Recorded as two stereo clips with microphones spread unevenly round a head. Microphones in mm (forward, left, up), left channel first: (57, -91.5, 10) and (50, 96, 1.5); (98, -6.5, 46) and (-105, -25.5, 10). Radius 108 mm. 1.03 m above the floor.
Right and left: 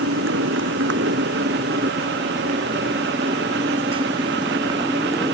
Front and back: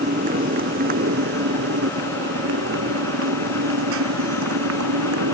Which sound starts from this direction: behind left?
A motorcycle, at 0.0 s.